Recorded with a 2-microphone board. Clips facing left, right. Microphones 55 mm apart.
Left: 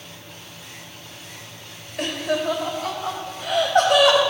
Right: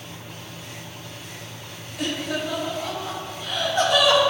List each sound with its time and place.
2.0 s laughter: 60° left (ahead or behind), 3 m; by 4.2 s 65° left (ahead or behind), 4.5 m